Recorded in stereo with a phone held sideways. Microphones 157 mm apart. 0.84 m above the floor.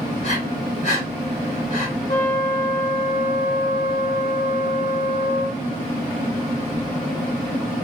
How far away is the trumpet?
About 1.0 m.